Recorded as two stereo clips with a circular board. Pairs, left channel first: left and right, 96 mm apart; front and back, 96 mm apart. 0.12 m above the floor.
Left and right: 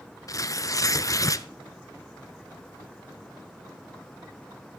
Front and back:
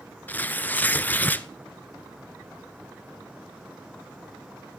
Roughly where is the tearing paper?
Ahead left.